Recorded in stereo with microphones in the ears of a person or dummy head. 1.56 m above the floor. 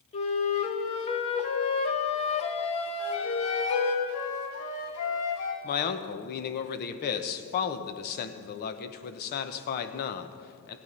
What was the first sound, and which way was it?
A flute, 35° left (ahead or behind).